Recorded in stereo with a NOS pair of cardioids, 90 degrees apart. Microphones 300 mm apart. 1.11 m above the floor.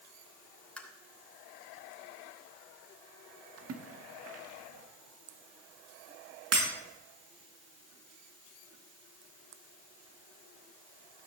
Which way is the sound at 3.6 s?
50° right.